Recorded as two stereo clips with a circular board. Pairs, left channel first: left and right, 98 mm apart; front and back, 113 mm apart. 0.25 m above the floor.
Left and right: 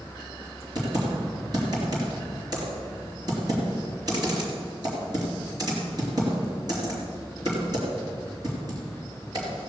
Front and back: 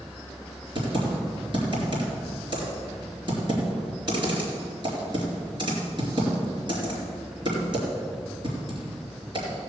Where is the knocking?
I don't hear knocking.